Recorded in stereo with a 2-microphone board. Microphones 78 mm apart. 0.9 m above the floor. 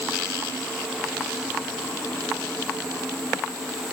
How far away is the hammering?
No hammering in this recording.